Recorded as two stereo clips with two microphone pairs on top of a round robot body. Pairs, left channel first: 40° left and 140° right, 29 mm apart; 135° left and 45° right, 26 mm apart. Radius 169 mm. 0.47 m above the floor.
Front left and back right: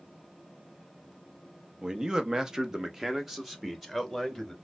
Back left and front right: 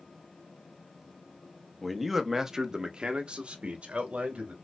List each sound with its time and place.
1.8 s a man speaking: 165° right, 1.0 m; by 4.5 s 55° right, 1.5 m